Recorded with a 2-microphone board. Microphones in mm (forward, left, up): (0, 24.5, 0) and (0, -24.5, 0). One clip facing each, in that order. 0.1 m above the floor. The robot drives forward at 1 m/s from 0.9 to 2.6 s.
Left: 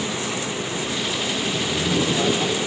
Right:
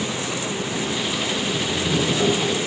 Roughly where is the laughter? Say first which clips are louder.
Left 1 dB; left.